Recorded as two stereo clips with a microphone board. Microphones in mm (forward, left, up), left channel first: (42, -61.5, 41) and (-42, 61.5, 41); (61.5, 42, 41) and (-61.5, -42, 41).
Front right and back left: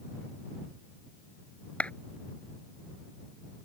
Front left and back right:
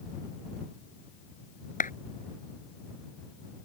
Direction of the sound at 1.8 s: 25° left.